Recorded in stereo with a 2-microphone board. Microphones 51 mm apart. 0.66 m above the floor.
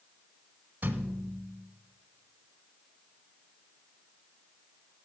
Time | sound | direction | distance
0.8 | a thud | 35° right (ahead or behind) | 1.2 m